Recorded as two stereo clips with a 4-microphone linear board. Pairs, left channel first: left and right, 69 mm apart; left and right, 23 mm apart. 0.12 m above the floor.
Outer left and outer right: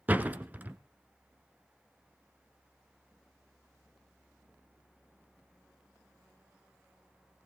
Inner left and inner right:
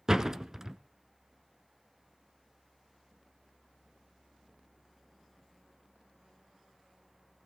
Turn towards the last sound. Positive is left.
turn(degrees=-25)  # may be behind; listen again after turning